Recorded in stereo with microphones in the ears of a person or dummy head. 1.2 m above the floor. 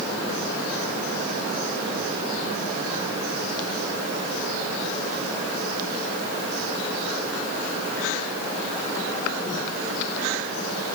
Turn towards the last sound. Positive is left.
No sound to turn to.